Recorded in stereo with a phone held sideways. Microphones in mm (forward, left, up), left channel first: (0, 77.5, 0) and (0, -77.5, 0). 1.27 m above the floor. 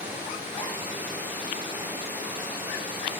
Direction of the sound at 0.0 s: 10° right (ahead or behind).